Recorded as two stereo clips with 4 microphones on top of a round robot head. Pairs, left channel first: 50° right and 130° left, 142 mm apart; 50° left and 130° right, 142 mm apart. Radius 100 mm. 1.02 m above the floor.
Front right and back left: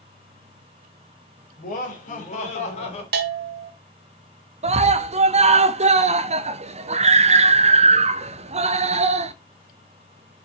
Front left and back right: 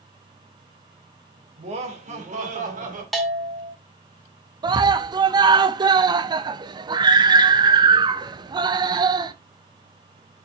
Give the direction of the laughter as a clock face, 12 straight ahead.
3 o'clock.